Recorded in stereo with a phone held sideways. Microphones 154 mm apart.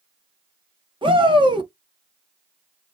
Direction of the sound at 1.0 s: 30° right (ahead or behind).